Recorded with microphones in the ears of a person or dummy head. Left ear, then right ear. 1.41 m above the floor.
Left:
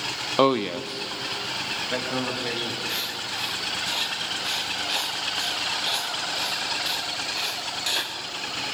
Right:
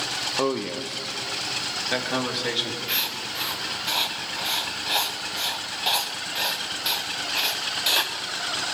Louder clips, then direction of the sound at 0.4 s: Left 9 dB; 50° left (ahead or behind).